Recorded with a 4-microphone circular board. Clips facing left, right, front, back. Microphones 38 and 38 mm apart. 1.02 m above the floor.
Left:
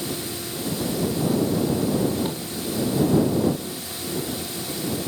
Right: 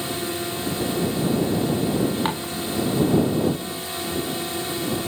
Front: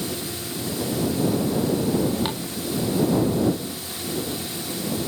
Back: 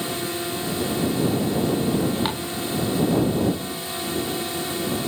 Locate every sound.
0.0 s a drone: 135° right
2.2 s dishes clattering: 110° right